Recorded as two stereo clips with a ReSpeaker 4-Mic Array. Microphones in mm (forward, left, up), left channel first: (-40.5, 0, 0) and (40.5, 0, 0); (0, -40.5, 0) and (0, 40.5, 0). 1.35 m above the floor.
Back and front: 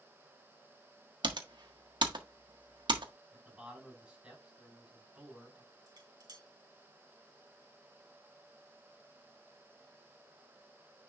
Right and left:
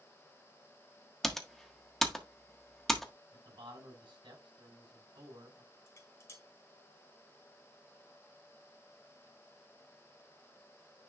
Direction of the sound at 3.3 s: 80° left.